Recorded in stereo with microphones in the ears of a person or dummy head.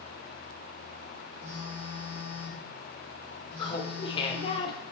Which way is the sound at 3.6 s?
30° left (ahead or behind).